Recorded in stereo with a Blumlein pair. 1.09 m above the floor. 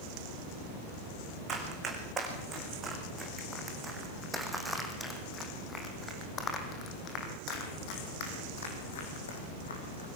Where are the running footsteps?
25° right, 5.5 m; by 10.1 s 70° left, 4.5 m.